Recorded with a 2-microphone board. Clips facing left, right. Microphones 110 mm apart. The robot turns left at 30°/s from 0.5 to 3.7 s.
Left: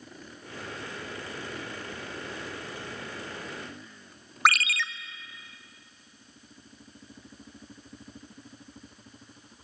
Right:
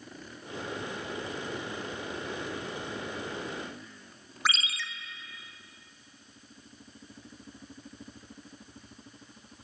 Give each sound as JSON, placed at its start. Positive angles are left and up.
{"t": 4.5, "sound": "a ringtone", "side_deg": 65, "distance_m": 0.7}